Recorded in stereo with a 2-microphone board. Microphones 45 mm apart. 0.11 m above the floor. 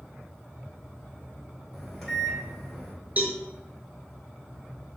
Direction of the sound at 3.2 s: 35° right (ahead or behind).